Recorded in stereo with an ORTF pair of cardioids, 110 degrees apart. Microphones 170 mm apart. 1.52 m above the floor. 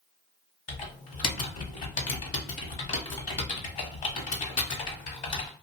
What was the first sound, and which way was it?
Typing on a keyboard, 50° left.